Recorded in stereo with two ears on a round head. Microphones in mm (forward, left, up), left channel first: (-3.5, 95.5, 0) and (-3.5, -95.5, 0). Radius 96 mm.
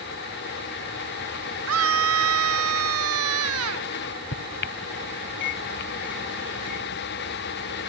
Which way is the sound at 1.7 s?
80° right.